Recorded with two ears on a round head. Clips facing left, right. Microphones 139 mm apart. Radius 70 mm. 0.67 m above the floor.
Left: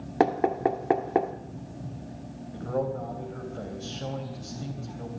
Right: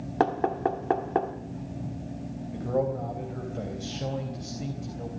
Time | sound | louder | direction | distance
0.2 | knocking | left 2 dB | 15° left (ahead or behind) | 1.1 m
2.5 | a man speaking | right 2 dB | 15° right (ahead or behind) | 3.5 m